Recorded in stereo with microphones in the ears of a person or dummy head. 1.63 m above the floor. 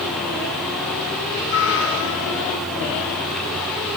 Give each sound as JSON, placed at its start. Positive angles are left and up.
{"t": 1.5, "sound": "a cat meowing", "side_deg": 75, "distance_m": 6.5}